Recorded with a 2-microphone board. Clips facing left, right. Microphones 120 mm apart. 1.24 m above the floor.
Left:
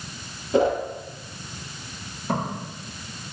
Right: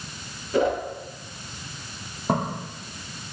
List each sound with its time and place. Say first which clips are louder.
0.5 s a whoosh: left 2 dB; 30° left (ahead or behind), 1.0 m
2.3 s footsteps: right 2 dB; 50° right (ahead or behind), 2.0 m